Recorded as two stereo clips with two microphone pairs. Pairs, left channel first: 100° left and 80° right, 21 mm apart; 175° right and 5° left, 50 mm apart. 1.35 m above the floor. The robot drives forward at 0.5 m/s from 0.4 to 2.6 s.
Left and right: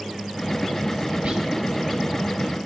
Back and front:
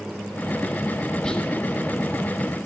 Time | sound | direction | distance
1.2 | whispering | 100° right | 4 m